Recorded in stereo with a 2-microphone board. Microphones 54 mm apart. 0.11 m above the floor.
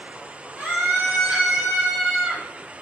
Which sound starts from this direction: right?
A scream, at 0.6 s.